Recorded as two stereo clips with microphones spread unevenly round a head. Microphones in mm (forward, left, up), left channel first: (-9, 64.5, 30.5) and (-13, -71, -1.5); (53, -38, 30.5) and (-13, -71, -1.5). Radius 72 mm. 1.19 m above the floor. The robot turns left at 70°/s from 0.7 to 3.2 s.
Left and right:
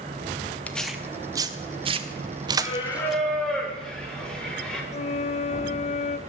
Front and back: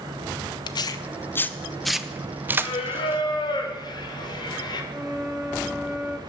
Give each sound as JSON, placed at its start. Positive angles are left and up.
{"t": 0.7, "sound": "tearing paper", "azimuth_deg": 0, "distance_m": 0.7}
{"t": 2.6, "sound": "singing", "azimuth_deg": 40, "distance_m": 1.5}
{"t": 4.9, "sound": "a flute", "azimuth_deg": 115, "distance_m": 0.5}